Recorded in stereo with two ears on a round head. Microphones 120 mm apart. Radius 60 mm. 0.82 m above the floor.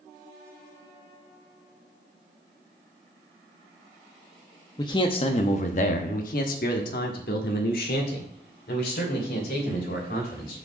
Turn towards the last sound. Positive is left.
turn(degrees=75)  # may be behind; listen again after turning